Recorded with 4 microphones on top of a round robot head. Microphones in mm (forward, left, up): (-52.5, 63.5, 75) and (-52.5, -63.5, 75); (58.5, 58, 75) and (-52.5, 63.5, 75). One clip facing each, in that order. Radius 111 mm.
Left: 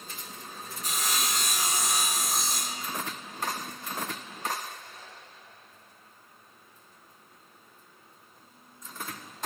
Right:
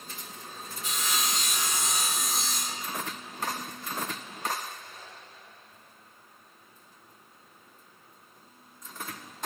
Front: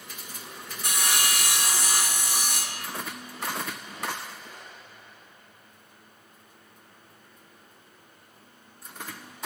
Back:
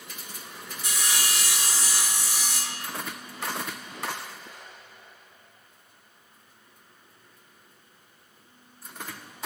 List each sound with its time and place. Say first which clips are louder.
0.8 s sawing: even, front 3 dB; 35° left, 1.0 m